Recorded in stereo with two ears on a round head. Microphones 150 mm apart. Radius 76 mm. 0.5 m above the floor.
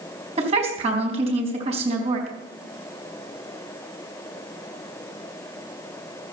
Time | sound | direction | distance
0.4 | a woman speaking | 35° right (ahead or behind) | 4 m